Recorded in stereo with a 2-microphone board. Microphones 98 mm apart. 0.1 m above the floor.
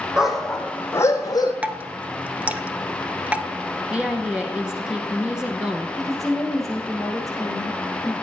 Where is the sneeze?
I don't hear a sneeze.